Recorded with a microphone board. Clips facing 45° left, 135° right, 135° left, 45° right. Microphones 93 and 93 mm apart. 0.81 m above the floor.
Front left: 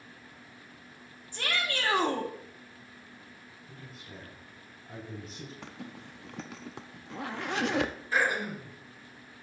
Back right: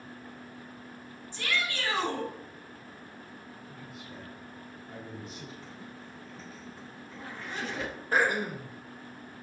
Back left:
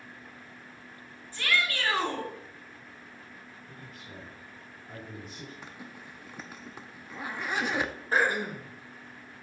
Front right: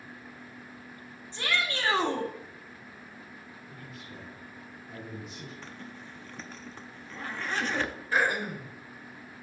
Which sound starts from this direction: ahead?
A shout, at 1.3 s.